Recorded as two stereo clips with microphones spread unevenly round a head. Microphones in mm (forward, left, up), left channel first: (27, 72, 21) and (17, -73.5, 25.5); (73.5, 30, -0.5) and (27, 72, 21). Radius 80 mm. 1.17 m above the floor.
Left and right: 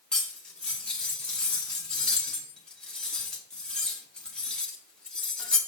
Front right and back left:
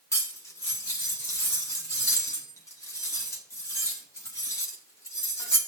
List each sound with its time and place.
0.1 s cutlery clinking: straight ahead, 1.7 m